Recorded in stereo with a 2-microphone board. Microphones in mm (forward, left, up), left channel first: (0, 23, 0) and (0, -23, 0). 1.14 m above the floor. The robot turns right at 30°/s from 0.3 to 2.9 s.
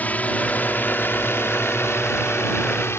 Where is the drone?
35° left (ahead or behind); by 3.0 s 65° left (ahead or behind).